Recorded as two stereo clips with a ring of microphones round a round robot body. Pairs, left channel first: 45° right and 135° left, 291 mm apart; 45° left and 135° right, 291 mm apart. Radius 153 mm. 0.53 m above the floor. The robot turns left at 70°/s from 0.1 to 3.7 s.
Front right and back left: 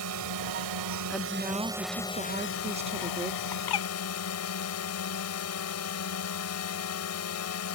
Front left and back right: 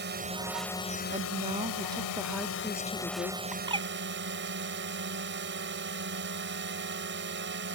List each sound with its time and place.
0.0 s a drone: 170° left; by 7.8 s 80° right
1.1 s a woman speaking: 130° right; by 3.4 s 70° left
3.5 s a bird: 45° right; by 3.9 s 60° right